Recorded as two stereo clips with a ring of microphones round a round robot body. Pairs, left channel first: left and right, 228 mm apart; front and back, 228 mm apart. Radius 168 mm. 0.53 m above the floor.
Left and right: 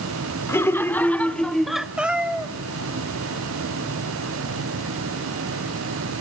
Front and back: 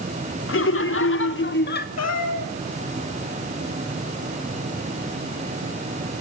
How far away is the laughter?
About 1.4 m.